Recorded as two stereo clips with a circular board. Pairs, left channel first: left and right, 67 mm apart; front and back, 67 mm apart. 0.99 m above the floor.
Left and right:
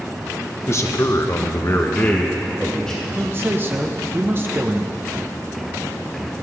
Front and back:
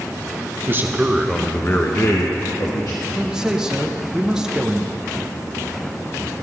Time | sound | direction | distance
0.7 | a man speaking | 130° left | 1.1 m
3.1 | a man speaking | 105° right | 0.8 m